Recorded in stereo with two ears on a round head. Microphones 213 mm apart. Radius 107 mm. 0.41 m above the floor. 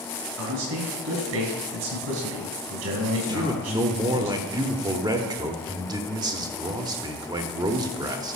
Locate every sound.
0.4 s a man speaking: 70° right (ahead or behind), 3 m
3.3 s a man speaking: 15° right (ahead or behind), 0.9 m